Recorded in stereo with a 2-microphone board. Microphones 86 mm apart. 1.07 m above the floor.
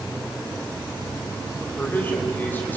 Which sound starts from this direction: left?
A man speaking, at 1.7 s.